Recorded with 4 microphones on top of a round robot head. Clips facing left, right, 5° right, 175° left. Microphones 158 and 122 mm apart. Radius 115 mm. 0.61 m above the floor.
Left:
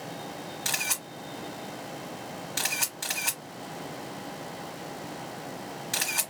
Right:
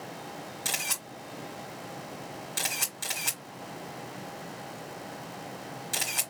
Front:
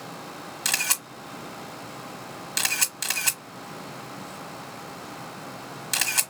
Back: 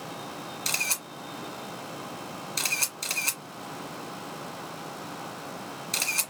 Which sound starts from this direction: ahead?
A camera shutter, at 0.7 s.